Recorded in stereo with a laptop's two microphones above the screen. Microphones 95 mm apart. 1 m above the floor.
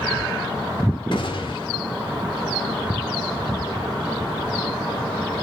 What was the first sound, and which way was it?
A gunshot, 60° left (ahead or behind).